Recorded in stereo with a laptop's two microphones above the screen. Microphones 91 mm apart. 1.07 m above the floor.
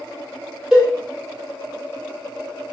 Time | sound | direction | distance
0.7 | a cowbell | 5° right (ahead or behind) | 0.9 m